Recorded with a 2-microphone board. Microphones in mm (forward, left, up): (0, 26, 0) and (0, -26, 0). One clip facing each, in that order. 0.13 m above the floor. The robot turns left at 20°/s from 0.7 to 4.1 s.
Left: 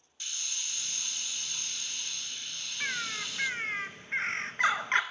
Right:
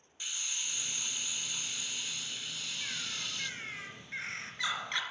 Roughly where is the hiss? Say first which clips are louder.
Right 1 dB; centre.